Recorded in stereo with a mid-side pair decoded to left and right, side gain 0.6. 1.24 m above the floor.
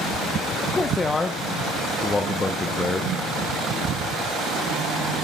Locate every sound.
0.6 s a man speaking: 20° left, 0.8 m